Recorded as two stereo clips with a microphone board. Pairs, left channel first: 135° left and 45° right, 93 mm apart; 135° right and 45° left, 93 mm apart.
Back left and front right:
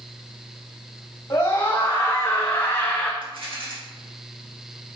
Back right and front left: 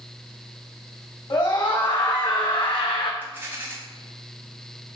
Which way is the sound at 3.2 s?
25° right.